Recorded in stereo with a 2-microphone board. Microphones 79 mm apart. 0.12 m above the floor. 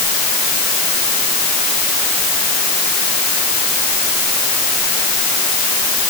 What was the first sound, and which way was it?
Only background noise.